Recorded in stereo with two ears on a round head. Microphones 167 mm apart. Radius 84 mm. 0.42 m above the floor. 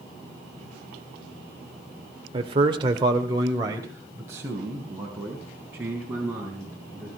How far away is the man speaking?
About 1.5 m.